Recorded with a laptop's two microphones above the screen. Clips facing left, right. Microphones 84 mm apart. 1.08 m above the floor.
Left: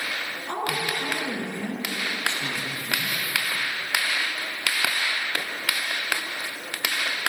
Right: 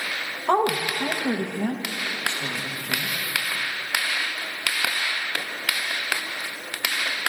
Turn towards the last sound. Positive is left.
turn(degrees=-70)  # may be behind; listen again after turning